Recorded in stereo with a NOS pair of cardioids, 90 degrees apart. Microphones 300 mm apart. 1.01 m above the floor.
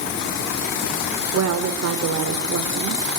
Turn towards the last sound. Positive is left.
turn(degrees=-60)